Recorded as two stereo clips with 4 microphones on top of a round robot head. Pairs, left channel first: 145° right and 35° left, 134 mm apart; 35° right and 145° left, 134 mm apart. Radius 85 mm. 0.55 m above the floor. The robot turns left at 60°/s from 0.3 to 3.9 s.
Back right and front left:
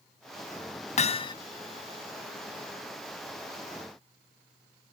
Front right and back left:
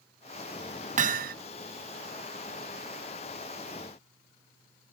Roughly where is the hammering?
Behind.